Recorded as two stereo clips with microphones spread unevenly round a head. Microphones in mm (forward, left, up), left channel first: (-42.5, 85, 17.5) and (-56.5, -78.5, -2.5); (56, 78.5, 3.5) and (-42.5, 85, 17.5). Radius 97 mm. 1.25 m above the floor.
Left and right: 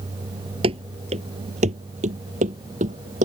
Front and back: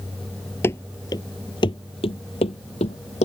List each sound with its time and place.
0.6 s running footsteps: 65° right; by 3.3 s 40° right